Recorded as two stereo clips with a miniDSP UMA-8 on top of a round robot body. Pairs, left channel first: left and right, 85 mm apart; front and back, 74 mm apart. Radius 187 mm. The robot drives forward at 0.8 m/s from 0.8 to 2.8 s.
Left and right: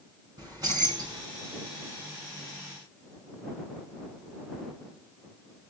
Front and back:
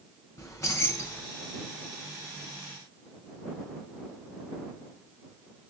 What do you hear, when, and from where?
0.4 s keys jangling: 45° right, 2.5 m; by 1.2 s 55° right, 2 m